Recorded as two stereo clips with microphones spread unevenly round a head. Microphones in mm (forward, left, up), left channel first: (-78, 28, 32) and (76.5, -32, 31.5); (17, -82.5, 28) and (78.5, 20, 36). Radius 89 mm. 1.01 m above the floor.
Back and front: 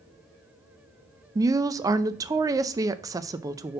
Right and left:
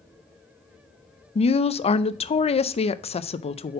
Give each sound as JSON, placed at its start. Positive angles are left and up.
{"t": 1.4, "sound": "a woman speaking", "azimuth_deg": -90, "distance_m": 0.5}